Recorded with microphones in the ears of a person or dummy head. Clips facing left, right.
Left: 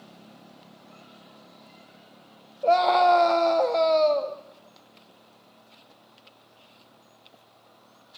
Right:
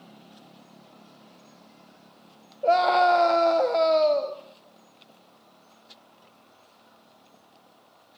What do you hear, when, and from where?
2.6 s a scream: 10° right (ahead or behind), 1.5 m